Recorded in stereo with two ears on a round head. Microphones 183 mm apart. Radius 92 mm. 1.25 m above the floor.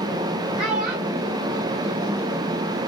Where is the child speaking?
30° right (ahead or behind), 0.7 m; by 2.5 s 75° right (ahead or behind), 1.4 m.